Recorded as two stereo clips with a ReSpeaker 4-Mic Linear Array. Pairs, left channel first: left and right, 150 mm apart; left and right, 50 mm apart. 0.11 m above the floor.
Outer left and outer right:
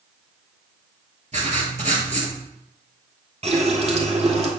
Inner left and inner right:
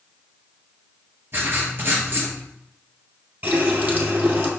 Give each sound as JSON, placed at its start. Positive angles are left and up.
{"t": 1.3, "sound": "writing", "side_deg": -50, "distance_m": 2.0}
{"t": 3.4, "sound": "a running tap", "side_deg": -45, "distance_m": 1.7}